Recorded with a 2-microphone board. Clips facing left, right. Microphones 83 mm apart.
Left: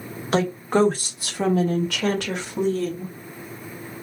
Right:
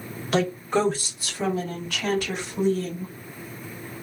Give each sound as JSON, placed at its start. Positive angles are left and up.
{"t": 0.3, "sound": "a woman speaking", "side_deg": 35, "distance_m": 1.5}